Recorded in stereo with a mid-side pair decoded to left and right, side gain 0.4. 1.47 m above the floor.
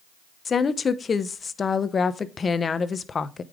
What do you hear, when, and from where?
0.5 s a woman speaking: 45° left, 0.8 m